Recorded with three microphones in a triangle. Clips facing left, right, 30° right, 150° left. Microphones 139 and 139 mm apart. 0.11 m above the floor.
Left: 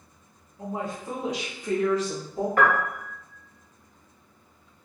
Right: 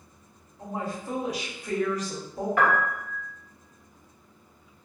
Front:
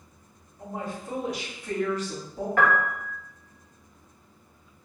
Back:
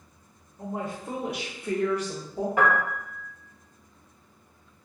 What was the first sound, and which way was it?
A woman speaking, 155° left.